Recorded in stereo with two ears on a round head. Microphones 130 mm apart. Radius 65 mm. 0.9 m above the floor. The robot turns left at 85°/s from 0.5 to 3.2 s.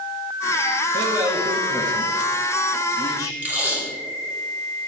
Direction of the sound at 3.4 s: 10° right (ahead or behind).